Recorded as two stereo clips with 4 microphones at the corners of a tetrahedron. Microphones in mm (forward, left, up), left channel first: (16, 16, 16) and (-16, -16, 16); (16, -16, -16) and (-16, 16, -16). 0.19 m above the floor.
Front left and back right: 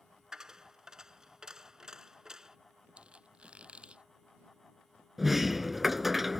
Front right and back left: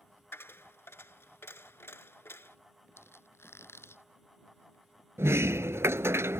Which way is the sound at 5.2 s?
140° left.